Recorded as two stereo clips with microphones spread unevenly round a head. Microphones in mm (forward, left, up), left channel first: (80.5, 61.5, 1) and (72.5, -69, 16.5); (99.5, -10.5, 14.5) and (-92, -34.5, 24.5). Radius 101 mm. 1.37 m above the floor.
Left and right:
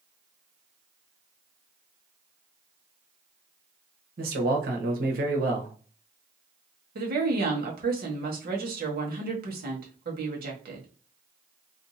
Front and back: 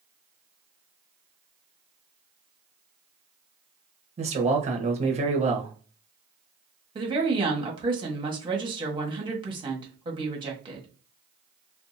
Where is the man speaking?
115° right, 1.0 m.